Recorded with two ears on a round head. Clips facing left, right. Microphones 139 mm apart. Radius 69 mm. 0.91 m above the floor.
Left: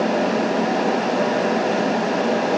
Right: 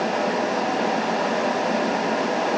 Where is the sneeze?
I don't hear a sneeze.